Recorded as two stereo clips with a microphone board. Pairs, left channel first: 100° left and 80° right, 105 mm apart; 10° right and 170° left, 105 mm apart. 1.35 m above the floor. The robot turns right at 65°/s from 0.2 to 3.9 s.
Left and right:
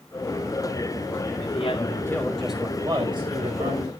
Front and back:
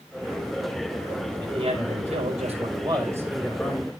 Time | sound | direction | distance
1.4 | a man speaking | 120° left | 5.5 m